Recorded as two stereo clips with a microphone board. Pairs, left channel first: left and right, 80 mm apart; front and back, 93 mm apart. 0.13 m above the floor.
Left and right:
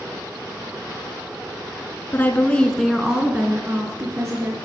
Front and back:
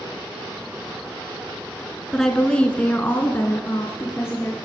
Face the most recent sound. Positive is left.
turn(degrees=-55)